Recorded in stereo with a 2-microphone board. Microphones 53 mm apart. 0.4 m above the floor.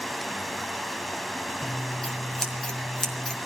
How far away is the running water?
About 1.4 m.